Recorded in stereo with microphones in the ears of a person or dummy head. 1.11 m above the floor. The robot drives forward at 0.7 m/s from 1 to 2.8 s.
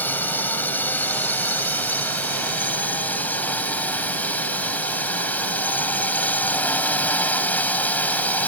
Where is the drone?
10° left (ahead or behind).